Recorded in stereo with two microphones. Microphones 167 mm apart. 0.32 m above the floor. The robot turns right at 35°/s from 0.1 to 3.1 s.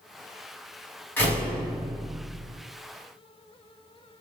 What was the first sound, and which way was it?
A door slam, 165° left.